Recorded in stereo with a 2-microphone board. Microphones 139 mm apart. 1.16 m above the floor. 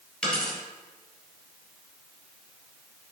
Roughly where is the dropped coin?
Centre.